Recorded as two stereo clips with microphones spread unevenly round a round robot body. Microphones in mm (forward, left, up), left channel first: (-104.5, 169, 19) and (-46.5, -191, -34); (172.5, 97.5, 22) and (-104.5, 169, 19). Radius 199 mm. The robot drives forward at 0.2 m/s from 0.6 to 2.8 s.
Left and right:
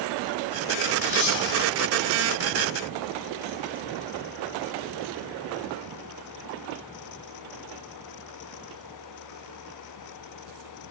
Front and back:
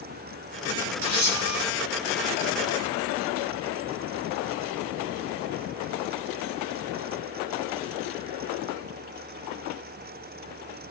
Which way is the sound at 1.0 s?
135° left.